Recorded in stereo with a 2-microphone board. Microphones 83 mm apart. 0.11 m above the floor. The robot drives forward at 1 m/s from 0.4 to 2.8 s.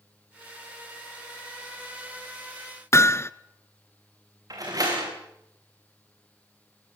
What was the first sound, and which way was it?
Hammering, 35° left (ahead or behind).